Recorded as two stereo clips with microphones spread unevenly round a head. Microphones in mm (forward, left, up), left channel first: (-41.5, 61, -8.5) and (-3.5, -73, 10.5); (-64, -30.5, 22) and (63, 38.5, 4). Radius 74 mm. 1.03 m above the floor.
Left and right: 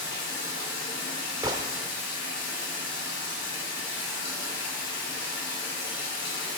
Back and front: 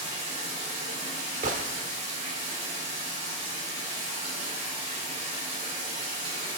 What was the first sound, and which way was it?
Running water, 80° left.